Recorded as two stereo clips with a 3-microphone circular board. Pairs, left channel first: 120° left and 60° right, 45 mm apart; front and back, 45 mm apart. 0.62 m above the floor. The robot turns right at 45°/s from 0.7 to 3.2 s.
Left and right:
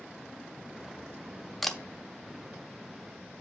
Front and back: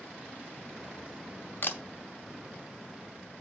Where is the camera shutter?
35° left, 0.8 m; by 1.8 s 40° left, 0.8 m.